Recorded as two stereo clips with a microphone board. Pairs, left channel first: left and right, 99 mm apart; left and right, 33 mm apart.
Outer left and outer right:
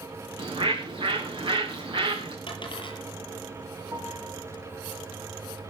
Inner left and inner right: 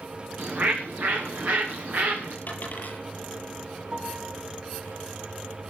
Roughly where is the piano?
Right.